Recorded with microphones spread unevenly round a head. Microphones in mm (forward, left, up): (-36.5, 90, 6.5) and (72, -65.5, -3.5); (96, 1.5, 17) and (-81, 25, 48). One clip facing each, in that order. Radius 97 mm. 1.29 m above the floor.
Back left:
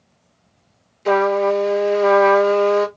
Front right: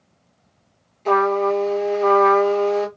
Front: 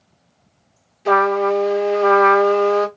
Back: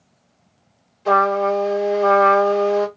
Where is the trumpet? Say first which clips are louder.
Back left 2 dB, front 1 dB; 65° left, 1.0 m.